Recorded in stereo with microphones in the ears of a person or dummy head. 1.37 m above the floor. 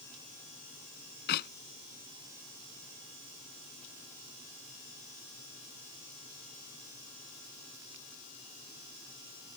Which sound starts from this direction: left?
A clap, at 1.3 s.